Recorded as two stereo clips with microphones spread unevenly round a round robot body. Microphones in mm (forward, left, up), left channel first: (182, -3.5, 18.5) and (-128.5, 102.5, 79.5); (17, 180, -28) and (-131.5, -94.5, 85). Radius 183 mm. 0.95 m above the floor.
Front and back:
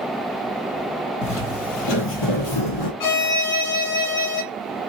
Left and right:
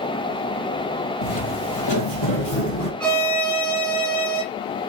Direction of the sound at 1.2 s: 35° left.